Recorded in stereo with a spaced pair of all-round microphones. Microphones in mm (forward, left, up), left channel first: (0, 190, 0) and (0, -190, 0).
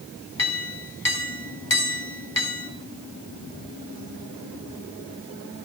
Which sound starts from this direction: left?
A clink, at 0.4 s.